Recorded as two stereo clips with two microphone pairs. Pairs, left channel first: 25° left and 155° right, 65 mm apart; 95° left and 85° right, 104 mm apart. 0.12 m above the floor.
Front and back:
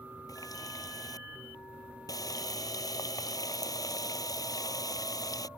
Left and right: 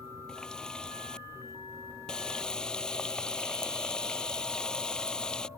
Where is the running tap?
15° left.